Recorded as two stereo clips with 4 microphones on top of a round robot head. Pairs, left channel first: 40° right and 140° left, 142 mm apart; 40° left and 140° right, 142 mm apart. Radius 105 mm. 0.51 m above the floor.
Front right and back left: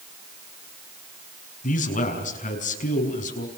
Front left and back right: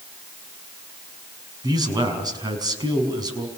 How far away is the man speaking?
About 5.5 m.